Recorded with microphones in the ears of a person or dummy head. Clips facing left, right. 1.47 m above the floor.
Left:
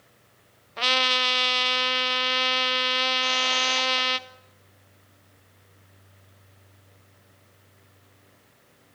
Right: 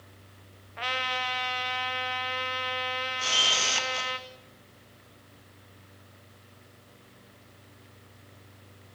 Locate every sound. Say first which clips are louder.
0.8 s a trumpet: left 6 dB; 55° left (ahead or behind), 1.1 m
3.2 s a camera shutter: left 5 dB; 50° right (ahead or behind), 2.5 m